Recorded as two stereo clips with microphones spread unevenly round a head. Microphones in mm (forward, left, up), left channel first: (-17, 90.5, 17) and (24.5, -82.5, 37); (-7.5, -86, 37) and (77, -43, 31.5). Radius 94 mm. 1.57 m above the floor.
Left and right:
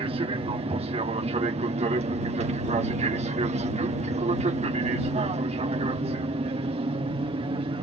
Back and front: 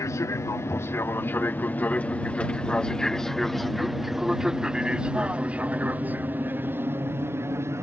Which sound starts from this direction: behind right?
An aircraft, at 0.0 s.